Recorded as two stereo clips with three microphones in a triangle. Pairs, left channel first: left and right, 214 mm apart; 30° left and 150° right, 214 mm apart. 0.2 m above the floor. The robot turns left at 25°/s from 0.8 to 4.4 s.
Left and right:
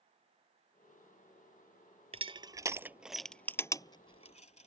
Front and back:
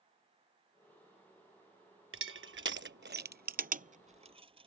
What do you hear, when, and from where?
2.1 s crushing: 155° right; by 4.7 s 150° left